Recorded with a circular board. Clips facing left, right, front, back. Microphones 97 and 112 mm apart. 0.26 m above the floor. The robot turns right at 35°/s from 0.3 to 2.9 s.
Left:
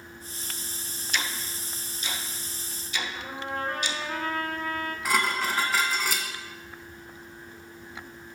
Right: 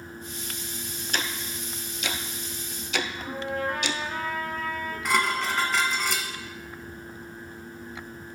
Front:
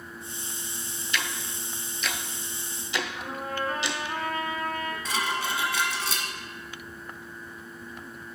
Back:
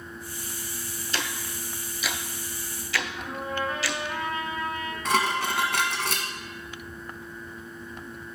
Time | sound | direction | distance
1.1 | ticking | 130° right | 0.7 m
3.1 | a trumpet | 50° left | 2.5 m
5.0 | dishes clattering | 175° left | 1.4 m